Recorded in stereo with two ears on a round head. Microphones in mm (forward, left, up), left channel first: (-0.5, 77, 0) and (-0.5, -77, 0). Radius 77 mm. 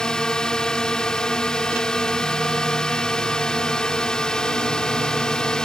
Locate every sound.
0.0 s a drone: 5° left (ahead or behind)